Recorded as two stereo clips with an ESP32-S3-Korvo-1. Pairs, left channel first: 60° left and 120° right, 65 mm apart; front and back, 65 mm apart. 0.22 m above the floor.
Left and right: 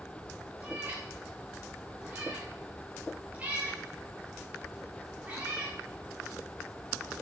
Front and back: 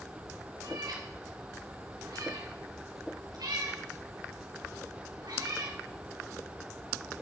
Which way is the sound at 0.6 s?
170° left.